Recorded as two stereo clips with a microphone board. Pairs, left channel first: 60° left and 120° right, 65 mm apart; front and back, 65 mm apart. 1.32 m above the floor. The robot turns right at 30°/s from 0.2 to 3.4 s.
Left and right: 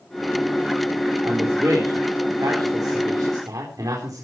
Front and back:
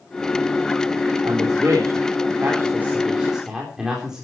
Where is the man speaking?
160° right, 4.5 m; by 4.2 s 95° right, 4.5 m.